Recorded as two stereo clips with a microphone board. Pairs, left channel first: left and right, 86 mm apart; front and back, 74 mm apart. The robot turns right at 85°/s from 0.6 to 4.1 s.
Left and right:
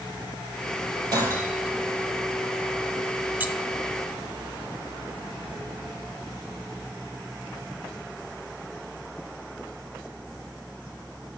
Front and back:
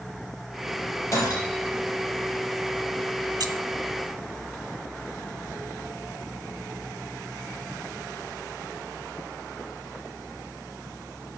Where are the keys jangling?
160° right, 1.6 m; by 3.5 s 150° right, 1.6 m.